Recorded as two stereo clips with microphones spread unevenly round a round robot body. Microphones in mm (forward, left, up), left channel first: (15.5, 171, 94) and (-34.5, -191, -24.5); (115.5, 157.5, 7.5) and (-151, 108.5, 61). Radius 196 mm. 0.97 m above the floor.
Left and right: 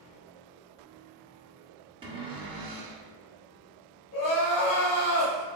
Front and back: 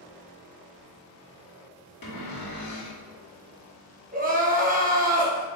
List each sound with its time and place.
2.0 s a cupboard door: 15° right, 0.9 m
4.1 s crying: 125° left, 1.0 m